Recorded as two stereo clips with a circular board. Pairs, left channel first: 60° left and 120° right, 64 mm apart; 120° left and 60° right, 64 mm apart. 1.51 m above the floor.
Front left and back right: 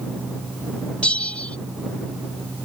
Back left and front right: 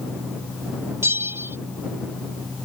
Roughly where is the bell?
Ahead.